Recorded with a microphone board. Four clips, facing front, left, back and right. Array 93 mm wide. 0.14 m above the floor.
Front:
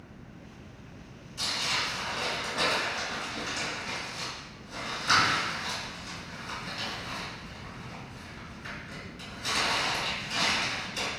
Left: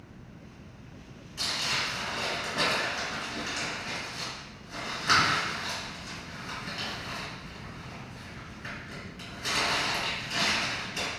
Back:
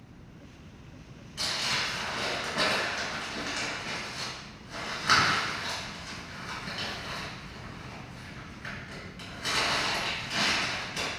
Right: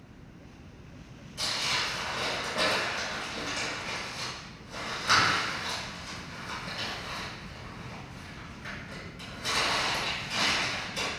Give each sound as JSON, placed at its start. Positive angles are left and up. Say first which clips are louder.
{"t": 1.4, "sound": "crumpling", "louder": "even, even", "azimuth_deg": 160, "distance_m": 2.0}